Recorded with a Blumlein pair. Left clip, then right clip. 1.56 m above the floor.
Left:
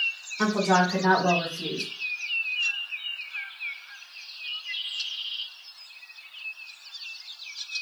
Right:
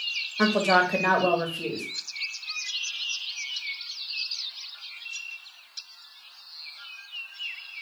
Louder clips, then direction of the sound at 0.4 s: Right 1 dB; 70° right.